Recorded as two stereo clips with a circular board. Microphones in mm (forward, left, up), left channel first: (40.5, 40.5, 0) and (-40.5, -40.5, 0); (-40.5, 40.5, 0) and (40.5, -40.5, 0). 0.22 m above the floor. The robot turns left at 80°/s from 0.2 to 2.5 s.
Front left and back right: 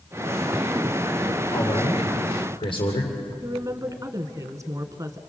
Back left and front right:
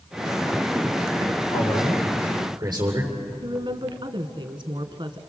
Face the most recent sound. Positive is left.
turn(degrees=-80)